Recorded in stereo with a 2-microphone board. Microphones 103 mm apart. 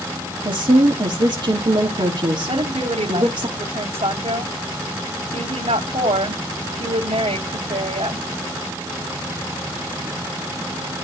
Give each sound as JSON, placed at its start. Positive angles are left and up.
{"t": 0.5, "sound": "a woman speaking", "side_deg": -50, "distance_m": 2.5}
{"t": 2.5, "sound": "a woman speaking", "side_deg": -85, "distance_m": 3.0}